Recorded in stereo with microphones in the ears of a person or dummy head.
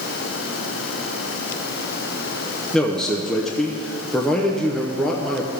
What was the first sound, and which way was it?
A man speaking, 10° left (ahead or behind).